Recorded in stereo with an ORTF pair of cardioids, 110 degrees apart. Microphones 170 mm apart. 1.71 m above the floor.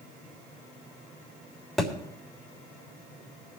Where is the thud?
Straight ahead, 3.5 m.